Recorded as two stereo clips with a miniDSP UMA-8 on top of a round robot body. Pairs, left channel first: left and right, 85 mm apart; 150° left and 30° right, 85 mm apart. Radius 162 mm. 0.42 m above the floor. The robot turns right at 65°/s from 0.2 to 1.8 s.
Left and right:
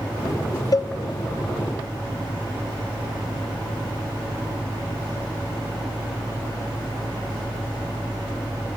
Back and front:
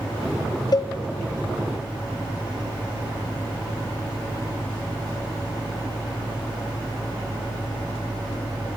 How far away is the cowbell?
About 0.7 m.